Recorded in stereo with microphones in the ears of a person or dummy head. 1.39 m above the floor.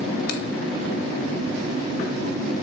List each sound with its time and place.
0.3 s a finger snap: 60° left (ahead or behind), 1.7 m